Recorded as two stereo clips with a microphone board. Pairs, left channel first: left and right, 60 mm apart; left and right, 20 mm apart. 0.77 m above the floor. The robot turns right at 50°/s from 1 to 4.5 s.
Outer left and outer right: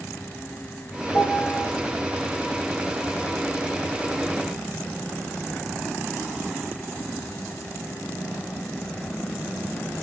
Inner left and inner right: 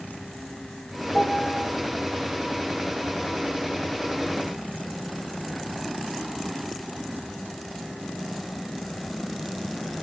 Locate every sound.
1.1 s a piano: 55° left (ahead or behind), 5.5 m; by 1.6 s 25° left (ahead or behind), 5.5 m